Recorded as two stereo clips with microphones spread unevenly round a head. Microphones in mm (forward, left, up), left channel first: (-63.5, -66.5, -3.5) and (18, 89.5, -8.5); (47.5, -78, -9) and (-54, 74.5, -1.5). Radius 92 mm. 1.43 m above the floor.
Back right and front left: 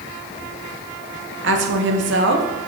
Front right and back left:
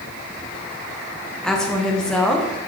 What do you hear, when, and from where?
1.4 s a woman speaking: 30° left, 1.0 m